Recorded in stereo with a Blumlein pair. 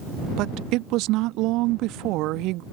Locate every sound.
0.4 s a woman speaking: 40° right